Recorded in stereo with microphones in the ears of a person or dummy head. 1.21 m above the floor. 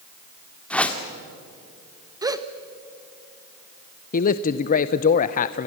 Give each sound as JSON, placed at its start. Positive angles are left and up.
{"t": 0.7, "sound": "a whoosh", "side_deg": 5, "distance_m": 1.8}
{"t": 2.2, "sound": "a gasp", "side_deg": -20, "distance_m": 1.0}
{"t": 4.1, "sound": "a man speaking", "side_deg": 40, "distance_m": 0.6}